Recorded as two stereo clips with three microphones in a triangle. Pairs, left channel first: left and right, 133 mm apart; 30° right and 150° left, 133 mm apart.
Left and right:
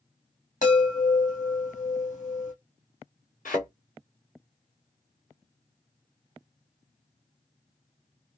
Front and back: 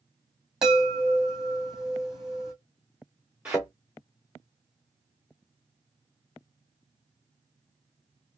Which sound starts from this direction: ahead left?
A chime, at 0.6 s.